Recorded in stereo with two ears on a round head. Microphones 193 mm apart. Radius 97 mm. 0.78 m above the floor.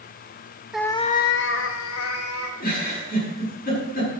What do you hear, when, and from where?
0.7 s a cat meowing: 5° right (ahead or behind), 0.6 m; by 2.5 s 80° left, 2.0 m
2.6 s a giggle: 45° left (ahead or behind), 7.5 m